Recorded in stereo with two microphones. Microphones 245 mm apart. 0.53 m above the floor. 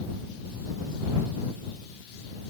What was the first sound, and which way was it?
Only background noise.